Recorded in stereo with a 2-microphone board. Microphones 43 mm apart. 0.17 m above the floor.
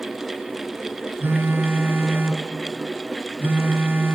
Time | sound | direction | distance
1.2 | a phone buzzing | 60° right (ahead or behind) | 1.7 m